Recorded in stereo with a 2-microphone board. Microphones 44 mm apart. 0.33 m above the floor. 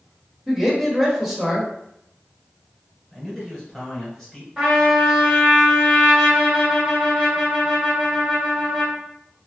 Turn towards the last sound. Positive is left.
turn(degrees=-10)  # may be behind; listen again after turning